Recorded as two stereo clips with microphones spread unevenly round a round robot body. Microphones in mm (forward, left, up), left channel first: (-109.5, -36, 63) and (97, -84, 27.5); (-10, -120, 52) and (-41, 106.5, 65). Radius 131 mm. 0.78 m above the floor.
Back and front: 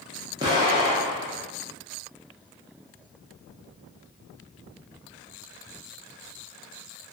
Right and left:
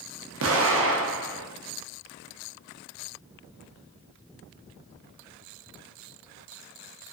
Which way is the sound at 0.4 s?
60° left.